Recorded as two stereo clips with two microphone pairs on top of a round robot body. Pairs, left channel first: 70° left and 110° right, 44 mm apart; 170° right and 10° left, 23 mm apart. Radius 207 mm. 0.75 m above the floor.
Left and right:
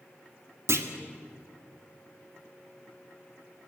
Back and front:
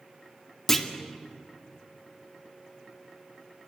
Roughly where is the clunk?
Right.